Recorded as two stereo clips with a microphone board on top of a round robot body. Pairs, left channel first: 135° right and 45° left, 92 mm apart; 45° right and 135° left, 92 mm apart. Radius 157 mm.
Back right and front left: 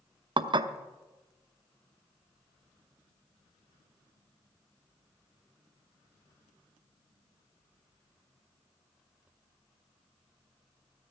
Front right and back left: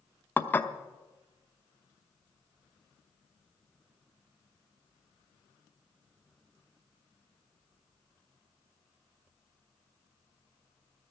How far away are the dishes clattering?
About 0.9 m.